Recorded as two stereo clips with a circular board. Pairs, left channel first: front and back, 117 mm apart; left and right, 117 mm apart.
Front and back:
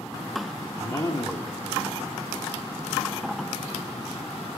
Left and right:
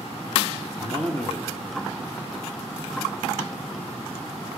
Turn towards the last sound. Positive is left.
turn(degrees=20)